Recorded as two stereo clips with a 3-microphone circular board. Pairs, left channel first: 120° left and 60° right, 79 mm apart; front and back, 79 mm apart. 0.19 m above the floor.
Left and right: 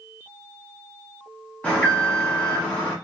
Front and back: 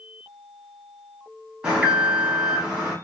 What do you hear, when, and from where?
1.6 s an alarm: 130° left, 1.1 m